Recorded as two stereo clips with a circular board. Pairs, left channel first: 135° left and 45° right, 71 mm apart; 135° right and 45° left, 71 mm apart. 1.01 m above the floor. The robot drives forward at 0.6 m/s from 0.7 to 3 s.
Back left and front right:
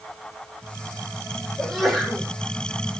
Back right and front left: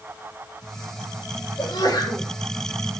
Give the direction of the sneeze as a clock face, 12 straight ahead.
5 o'clock.